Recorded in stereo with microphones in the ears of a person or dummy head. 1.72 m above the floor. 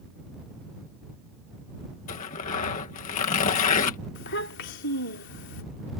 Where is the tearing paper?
35° left (ahead or behind).